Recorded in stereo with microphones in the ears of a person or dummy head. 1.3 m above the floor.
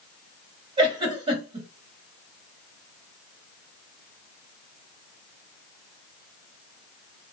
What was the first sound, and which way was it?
A giggle, 30° right (ahead or behind).